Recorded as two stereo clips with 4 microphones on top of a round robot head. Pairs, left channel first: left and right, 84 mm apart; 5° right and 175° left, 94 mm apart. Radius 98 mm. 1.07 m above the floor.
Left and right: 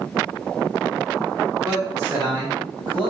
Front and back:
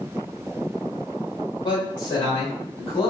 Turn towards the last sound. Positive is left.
turn(degrees=-45)